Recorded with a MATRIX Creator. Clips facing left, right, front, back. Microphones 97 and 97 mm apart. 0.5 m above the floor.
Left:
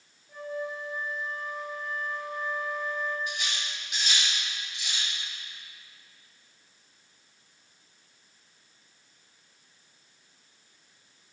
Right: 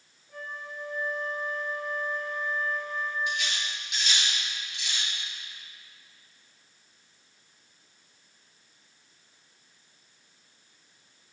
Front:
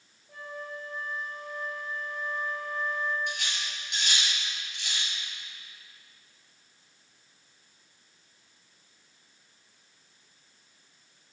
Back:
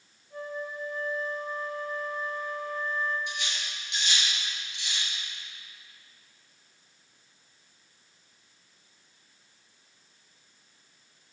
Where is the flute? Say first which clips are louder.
Left 6 dB, back 4 dB; 15° left, 3 m.